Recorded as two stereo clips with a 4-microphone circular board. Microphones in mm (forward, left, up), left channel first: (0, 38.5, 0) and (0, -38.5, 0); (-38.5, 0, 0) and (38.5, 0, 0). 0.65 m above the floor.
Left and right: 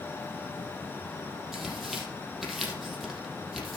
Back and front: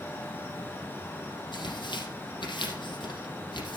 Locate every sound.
1.5 s tearing paper: straight behind, 4 m